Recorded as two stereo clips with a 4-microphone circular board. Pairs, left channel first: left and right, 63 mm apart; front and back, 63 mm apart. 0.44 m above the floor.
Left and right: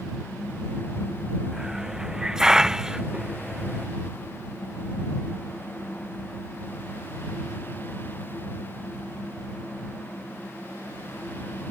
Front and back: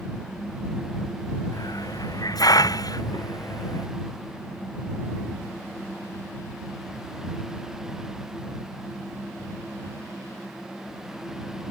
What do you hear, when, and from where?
1.5 s a hiss: 10° right